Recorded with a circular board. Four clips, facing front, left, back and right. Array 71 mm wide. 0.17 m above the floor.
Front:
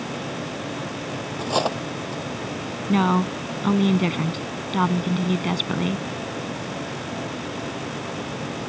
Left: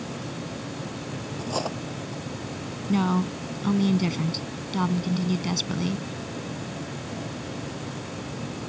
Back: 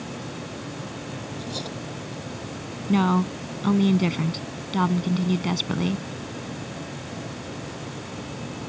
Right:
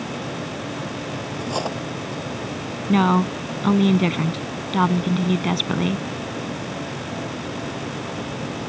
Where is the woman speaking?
70° right.